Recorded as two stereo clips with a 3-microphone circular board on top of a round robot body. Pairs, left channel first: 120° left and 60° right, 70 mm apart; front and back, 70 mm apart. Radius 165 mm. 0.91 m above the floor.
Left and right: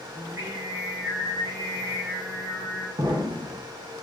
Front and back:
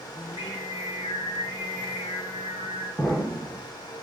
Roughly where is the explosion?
Right.